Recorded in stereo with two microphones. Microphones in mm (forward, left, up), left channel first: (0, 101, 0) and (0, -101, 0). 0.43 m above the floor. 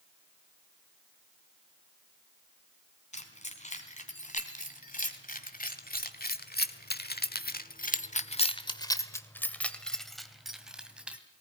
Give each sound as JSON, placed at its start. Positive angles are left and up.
{"t": 3.1, "sound": "keys jangling", "side_deg": 35, "distance_m": 3.5}